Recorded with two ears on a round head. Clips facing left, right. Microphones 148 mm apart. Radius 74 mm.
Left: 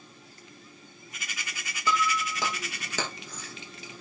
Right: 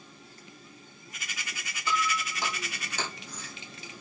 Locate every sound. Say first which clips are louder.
1.9 s breaking glass: left 3 dB; 65° left (ahead or behind), 4.5 m